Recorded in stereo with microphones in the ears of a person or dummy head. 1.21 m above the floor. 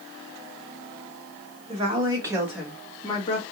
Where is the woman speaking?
30° right (ahead or behind), 1.8 m; by 3.4 s 35° left (ahead or behind), 1.5 m.